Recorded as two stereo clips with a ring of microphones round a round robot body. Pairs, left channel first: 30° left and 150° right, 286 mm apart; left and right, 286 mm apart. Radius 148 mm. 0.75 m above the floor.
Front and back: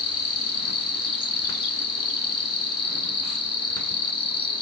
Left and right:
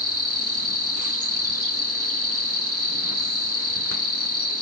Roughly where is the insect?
Ahead right.